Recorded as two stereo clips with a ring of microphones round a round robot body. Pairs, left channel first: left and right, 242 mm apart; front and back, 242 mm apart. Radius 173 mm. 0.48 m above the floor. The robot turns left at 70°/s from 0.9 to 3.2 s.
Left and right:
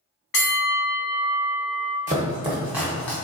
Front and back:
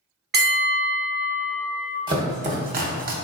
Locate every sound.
0.3 s a bell: 130° left, 0.8 m; by 2.0 s 55° left, 0.8 m
2.1 s chopping: 120° right, 0.7 m; by 3.1 s 165° left, 0.7 m